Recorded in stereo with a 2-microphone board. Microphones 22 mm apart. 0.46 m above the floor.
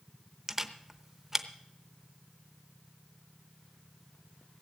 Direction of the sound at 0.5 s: 20° right (ahead or behind).